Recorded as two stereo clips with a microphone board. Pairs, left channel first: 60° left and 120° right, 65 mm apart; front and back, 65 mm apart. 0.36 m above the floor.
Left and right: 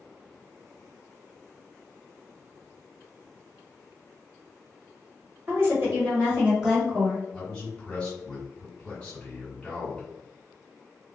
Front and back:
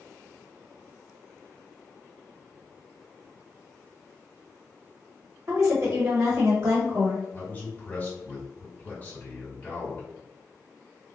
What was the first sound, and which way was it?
A woman speaking, 150° right.